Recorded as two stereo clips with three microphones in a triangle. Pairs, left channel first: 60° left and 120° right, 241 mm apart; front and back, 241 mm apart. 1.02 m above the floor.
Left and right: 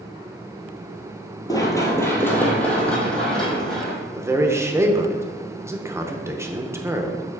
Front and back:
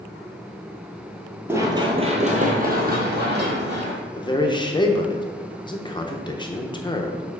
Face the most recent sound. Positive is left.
turn(degrees=-50)